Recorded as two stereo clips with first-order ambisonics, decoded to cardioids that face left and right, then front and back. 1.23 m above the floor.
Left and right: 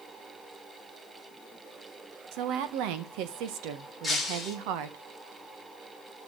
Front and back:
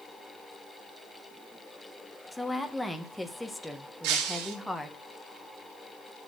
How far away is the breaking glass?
About 2.5 m.